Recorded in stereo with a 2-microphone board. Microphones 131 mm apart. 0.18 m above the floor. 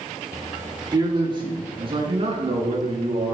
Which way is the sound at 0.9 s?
30° right (ahead or behind).